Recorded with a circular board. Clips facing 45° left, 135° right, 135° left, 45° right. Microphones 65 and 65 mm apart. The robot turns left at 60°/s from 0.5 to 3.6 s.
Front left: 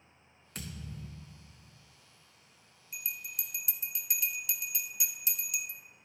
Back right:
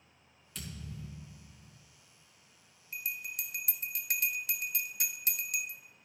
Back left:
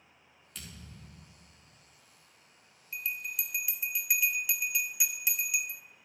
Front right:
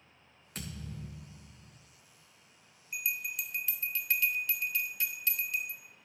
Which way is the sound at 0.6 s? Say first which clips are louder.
Front left 1 dB, front right 7 dB; straight ahead.